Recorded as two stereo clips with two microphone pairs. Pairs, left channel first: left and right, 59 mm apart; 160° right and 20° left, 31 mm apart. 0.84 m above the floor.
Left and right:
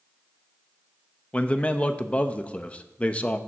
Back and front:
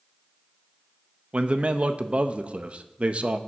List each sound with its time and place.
1.3 s a man speaking: 35° left, 0.6 m